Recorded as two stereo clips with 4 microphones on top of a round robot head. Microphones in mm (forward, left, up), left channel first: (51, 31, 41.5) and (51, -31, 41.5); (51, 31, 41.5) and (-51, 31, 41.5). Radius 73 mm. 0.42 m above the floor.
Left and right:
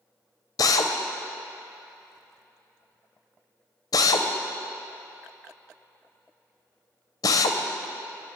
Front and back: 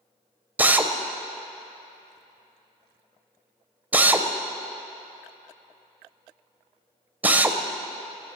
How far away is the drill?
About 0.8 m.